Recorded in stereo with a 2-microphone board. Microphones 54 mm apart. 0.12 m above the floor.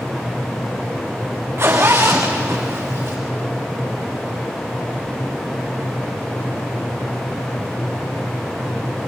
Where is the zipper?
45° right (ahead or behind), 4 m.